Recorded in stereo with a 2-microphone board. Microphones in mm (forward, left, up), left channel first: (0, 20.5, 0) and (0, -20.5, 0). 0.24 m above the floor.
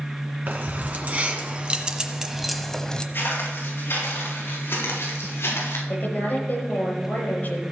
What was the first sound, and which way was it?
Keys jangling, 45° right (ahead or behind).